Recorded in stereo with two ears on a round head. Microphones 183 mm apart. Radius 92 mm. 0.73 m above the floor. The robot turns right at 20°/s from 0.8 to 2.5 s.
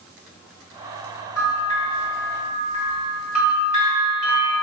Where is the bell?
15° left (ahead or behind), 1.8 m; by 4.5 s 40° left (ahead or behind), 1.8 m.